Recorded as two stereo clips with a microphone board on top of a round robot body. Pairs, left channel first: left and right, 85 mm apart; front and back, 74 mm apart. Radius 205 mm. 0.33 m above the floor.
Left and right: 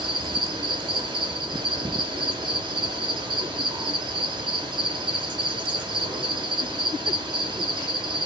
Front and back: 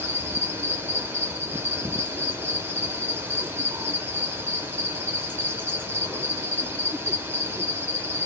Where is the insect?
115° right, 1.1 m.